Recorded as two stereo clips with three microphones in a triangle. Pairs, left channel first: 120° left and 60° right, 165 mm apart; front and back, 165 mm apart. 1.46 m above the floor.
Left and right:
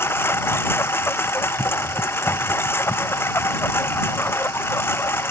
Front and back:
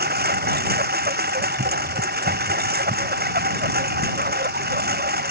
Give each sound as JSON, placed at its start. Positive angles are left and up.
{"t": 0.0, "sound": "a lawn mower", "azimuth_deg": -165}